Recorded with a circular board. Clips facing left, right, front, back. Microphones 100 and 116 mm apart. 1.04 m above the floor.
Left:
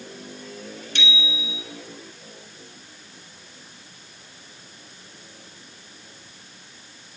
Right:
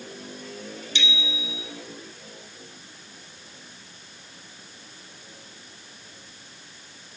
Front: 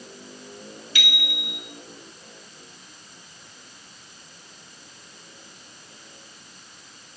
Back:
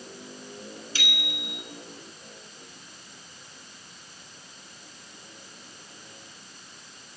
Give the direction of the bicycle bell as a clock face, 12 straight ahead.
8 o'clock.